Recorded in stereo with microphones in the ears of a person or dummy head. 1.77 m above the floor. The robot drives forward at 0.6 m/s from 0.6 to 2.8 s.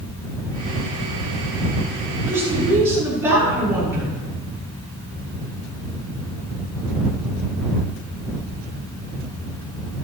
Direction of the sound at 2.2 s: 15° right (ahead or behind).